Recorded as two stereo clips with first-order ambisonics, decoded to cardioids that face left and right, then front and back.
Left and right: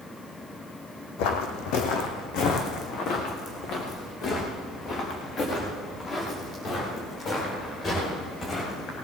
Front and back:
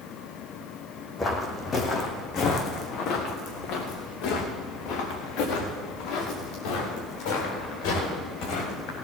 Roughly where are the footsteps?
Left.